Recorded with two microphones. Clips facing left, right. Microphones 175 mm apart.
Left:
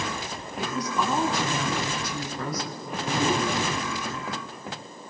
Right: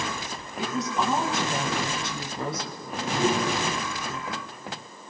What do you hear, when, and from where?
0.6 s a woman speaking: 25° right (ahead or behind), 5 m
2.8 s a whoosh: 15° right (ahead or behind), 9 m